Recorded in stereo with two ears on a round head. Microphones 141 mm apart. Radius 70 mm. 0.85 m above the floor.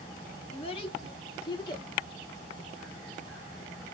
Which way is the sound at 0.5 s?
40° left (ahead or behind).